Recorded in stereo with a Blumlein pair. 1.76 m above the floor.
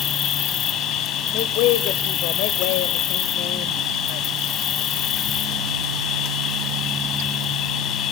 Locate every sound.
0.0 s an insect: 25° left, 1.2 m
1.3 s a woman speaking: 40° left, 0.9 m